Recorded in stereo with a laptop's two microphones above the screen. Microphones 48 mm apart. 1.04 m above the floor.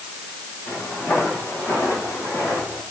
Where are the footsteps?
40° left (ahead or behind), 9 m; by 2.8 s 45° left (ahead or behind), 10 m.